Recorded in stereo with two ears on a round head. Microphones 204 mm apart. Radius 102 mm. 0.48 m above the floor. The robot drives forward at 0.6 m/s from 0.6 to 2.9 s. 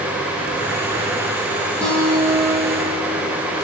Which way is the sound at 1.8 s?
5° left (ahead or behind).